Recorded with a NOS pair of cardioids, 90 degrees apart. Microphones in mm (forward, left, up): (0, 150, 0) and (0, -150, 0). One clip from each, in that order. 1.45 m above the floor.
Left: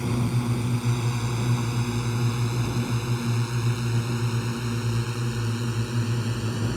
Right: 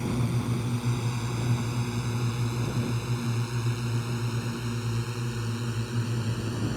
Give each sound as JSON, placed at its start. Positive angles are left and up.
{"t": 0.0, "sound": "a drone", "azimuth_deg": 30}